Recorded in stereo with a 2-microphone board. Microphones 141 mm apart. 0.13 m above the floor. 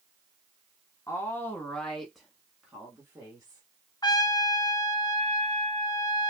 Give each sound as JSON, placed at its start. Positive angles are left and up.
{"t": 1.1, "sound": "a woman speaking", "side_deg": 20, "distance_m": 1.0}
{"t": 4.0, "sound": "a trumpet", "side_deg": 30, "distance_m": 0.6}